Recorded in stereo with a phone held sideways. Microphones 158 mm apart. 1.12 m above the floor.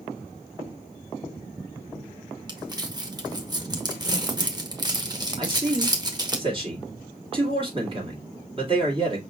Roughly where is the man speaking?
Right.